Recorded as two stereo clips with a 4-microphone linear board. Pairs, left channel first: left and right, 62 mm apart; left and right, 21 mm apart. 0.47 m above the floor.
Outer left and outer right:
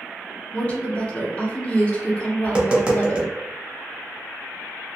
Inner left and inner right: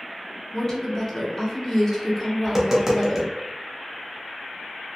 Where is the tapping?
20° right (ahead or behind), 0.6 m.